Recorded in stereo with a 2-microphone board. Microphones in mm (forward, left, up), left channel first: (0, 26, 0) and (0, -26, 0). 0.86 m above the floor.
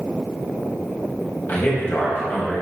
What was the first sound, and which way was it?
A man speaking, 40° left (ahead or behind).